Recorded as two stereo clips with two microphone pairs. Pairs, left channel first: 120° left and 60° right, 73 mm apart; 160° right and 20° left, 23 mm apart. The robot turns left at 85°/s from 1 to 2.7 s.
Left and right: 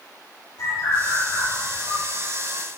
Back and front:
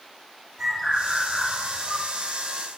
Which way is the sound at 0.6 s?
105° left.